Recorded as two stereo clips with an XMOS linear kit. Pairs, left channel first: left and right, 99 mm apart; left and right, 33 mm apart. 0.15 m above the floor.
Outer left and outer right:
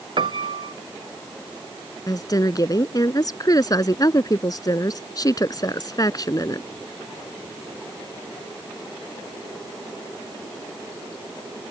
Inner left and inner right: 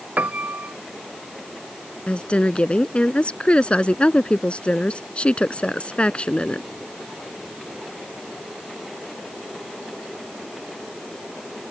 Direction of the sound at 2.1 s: 40° left (ahead or behind).